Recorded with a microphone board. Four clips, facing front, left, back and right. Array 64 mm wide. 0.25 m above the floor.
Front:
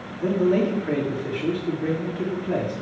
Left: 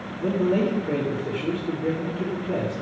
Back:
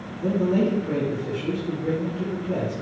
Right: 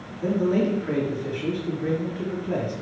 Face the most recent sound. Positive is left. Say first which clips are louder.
# even, front 1 dB
turn(degrees=-25)